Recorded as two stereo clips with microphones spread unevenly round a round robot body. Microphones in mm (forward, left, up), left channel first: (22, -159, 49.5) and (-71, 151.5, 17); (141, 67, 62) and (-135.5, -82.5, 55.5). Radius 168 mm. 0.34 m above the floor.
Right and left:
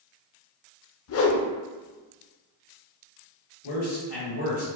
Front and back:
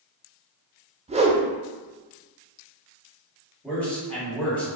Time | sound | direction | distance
1.1 | a whoosh | 95° right | 0.6 m
3.6 | a man speaking | 55° right | 1.8 m